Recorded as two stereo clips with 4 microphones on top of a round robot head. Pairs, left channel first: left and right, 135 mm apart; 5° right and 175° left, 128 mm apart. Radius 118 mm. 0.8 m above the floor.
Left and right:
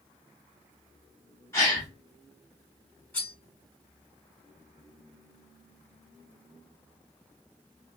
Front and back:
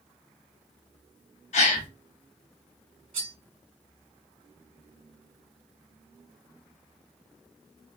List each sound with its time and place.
1.5 s a gasp: 15° left, 1.0 m
3.1 s cutlery clinking: 170° left, 2.5 m